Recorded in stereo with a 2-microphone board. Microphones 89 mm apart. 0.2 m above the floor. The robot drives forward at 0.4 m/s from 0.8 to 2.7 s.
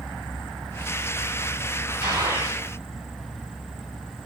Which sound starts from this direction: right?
A gunshot, at 2.0 s.